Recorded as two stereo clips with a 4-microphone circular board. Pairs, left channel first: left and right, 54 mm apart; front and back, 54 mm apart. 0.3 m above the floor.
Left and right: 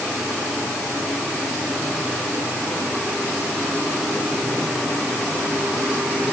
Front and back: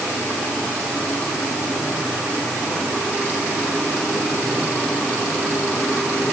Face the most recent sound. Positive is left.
No sound to turn to.